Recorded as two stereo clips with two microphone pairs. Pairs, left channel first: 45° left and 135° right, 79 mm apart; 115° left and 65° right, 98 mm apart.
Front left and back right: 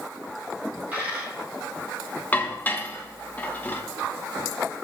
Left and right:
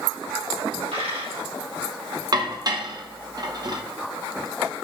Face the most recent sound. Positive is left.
turn(degrees=-20)